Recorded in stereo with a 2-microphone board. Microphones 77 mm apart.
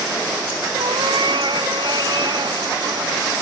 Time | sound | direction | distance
0.8 | a cat meowing | 80° right | ?